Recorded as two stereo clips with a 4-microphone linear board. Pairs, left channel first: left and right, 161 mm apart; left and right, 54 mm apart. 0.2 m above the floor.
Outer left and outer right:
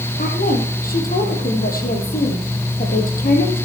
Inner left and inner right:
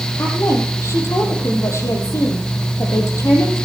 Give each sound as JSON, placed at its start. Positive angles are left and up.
{"t": 0.2, "sound": "a woman speaking", "side_deg": 60, "distance_m": 5.5}